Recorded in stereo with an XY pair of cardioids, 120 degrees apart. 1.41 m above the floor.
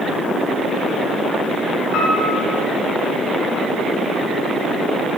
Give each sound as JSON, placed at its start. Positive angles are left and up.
{"t": 1.9, "sound": "a piano", "azimuth_deg": 60, "distance_m": 9.0}